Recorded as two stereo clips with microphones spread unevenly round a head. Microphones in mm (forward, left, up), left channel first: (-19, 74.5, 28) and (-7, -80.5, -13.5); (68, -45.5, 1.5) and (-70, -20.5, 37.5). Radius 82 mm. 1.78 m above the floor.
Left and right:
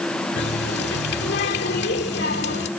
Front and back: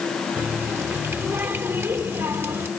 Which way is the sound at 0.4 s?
95° left.